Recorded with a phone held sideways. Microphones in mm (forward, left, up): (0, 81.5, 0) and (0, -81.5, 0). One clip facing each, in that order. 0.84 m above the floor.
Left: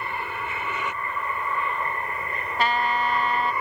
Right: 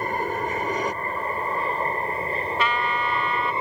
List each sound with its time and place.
0.0 s an aircraft: 40° right (ahead or behind); by 3.6 s 25° right (ahead or behind)
2.6 s a trumpet: 40° left (ahead or behind)